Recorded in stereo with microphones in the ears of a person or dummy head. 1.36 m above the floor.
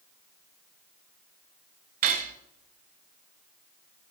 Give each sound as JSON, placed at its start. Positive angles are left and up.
{"t": 2.0, "sound": "cutlery clinking", "side_deg": -40, "distance_m": 0.9}